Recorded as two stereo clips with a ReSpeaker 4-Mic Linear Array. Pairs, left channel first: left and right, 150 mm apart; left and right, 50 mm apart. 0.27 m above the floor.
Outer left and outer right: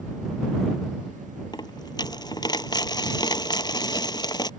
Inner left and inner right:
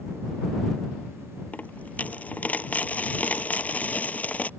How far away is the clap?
No clap in this recording.